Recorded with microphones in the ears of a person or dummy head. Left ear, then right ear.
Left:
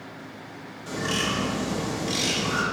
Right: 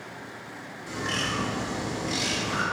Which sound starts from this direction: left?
A bird, at 0.9 s.